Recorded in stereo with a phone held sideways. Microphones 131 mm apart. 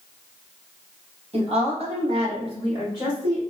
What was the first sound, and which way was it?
A woman speaking, 50° right (ahead or behind).